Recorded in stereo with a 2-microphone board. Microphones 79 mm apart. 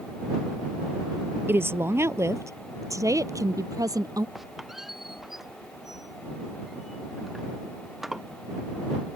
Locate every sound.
1.5 s a woman speaking: 30° right (ahead or behind); by 4.2 s 50° right (ahead or behind)
4.3 s a squeak: 5° right (ahead or behind)